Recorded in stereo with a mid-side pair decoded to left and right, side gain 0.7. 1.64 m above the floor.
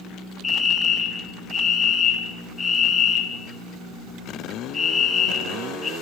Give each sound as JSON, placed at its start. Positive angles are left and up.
{"t": 0.4, "sound": "a fire alarm", "azimuth_deg": 25, "distance_m": 1.5}